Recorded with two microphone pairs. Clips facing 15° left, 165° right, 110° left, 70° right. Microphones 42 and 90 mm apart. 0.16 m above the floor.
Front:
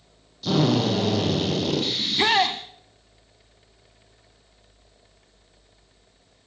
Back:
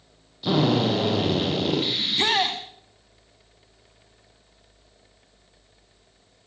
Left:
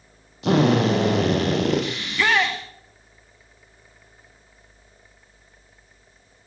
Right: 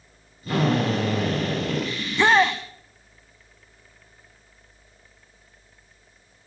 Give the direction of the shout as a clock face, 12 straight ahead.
1 o'clock.